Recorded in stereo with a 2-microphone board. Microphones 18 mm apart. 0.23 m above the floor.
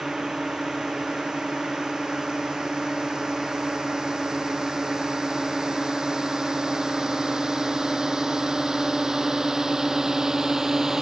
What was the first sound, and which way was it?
A drone, 40° right (ahead or behind).